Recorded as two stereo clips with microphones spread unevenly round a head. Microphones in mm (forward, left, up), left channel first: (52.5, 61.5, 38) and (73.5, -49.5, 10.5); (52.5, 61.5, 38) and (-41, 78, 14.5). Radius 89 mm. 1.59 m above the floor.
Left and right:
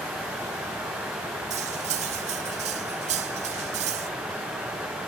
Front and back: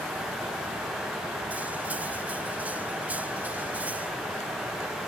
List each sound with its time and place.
1.5 s cutlery clinking: 95° right